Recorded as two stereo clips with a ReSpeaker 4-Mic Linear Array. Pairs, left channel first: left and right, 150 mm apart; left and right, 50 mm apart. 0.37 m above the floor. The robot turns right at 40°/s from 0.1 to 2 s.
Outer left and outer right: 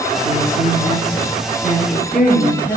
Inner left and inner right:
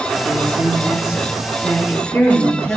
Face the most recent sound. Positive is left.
turn(degrees=10)